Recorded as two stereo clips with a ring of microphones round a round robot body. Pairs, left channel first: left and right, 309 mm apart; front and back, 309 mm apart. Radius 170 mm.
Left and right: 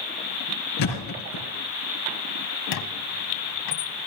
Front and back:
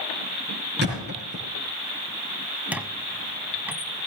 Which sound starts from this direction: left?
A squeak, at 2.7 s.